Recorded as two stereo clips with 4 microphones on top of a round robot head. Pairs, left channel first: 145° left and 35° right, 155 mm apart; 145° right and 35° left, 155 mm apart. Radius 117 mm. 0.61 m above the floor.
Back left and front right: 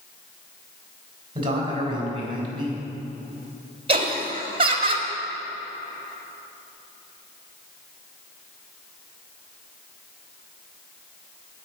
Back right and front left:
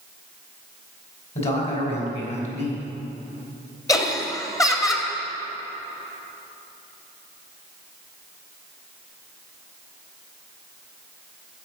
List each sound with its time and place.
1.4 s a man speaking: 95° right, 3.5 m
3.9 s laughter: 80° right, 1.8 m